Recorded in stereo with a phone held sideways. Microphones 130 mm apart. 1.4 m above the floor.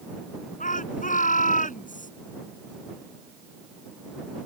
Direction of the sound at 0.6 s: 70° left (ahead or behind).